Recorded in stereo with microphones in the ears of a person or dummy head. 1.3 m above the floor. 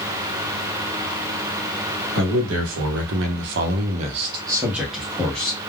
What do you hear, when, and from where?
2.1 s a man speaking: 80° right, 1.2 m; by 5.6 s 15° left (ahead or behind), 1.0 m